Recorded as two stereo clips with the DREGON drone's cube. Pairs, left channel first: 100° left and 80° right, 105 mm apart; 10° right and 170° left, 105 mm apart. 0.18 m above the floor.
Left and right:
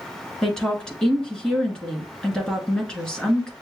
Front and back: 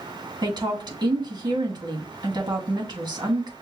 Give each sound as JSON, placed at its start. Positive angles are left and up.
{"t": 0.4, "sound": "a woman speaking", "azimuth_deg": 180, "distance_m": 1.7}